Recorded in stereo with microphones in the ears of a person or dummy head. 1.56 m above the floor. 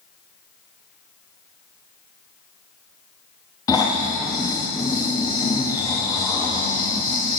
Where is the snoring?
15° left (ahead or behind), 1.0 m.